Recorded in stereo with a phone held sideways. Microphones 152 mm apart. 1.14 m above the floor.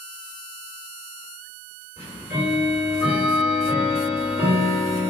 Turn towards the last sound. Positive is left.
turn(degrees=-20)  # may be behind; listen again after turning